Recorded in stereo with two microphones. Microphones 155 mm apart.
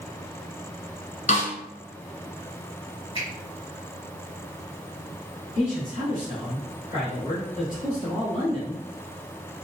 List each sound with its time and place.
1.3 s a snare drum: 55° left (ahead or behind), 0.8 m
3.1 s a finger snap: 35° left (ahead or behind), 1.7 m
5.5 s a man speaking: 45° left (ahead or behind), 1.4 m